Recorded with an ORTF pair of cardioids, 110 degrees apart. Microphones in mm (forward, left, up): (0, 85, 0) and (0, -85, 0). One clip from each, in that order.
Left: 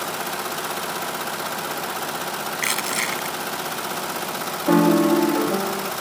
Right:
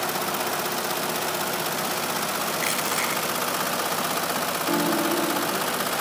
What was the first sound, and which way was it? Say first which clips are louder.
Crushing: left 4 dB; 35° left.